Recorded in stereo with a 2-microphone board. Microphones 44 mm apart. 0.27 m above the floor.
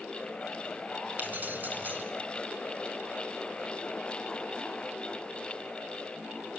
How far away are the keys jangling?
About 1.8 m.